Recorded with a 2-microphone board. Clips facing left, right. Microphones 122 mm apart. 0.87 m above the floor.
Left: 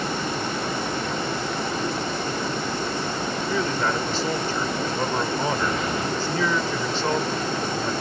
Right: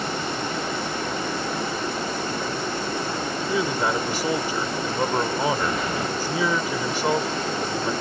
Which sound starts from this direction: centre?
A man speaking, at 3.5 s.